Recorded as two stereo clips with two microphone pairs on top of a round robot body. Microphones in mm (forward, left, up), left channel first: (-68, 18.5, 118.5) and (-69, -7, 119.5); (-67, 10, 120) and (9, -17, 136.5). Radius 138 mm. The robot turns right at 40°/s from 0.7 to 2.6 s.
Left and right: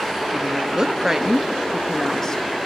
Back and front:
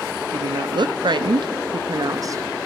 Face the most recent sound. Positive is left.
turn(degrees=40)